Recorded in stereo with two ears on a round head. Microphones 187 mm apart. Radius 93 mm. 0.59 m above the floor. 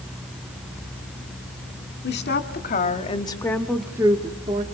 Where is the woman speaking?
55° left (ahead or behind), 1.7 m; by 4.6 s 40° right (ahead or behind), 1.3 m.